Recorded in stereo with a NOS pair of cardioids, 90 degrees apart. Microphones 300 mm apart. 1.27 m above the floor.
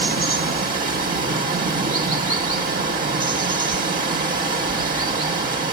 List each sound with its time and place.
0.0 s running water: 30° right, 1.7 m